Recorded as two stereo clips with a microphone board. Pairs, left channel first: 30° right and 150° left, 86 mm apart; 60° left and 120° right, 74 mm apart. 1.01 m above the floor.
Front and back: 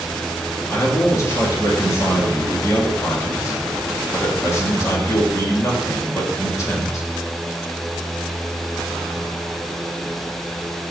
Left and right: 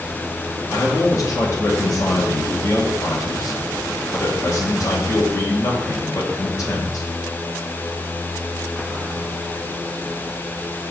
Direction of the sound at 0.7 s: 25° left.